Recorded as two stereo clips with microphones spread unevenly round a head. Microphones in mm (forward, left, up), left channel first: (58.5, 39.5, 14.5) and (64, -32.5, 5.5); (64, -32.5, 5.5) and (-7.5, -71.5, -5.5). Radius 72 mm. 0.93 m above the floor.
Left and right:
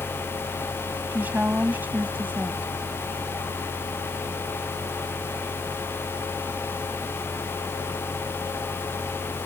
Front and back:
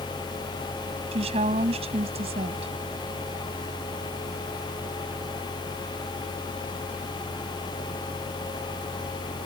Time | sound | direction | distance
1.1 | a woman speaking | 165° right | ?